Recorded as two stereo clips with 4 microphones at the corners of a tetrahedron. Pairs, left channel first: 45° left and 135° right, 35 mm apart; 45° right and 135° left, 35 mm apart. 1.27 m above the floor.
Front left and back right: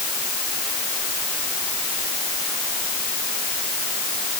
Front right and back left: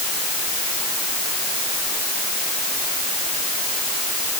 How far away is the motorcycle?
No motorcycle in this recording.